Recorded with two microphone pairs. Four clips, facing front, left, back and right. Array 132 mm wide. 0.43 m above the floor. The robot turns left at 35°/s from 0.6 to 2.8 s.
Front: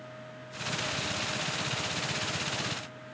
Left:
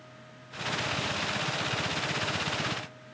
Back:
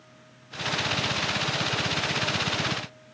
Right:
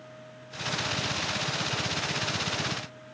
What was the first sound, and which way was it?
Only background noise.